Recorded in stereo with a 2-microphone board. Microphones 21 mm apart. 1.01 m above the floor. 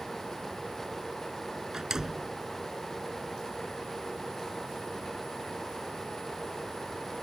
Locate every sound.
1.7 s a door slam: 25° right (ahead or behind)